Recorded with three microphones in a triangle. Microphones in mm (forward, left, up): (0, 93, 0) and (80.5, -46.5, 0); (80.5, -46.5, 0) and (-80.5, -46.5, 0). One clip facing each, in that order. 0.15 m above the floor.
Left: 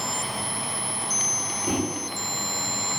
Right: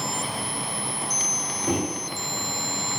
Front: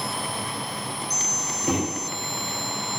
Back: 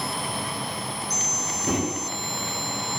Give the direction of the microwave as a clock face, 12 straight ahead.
5 o'clock.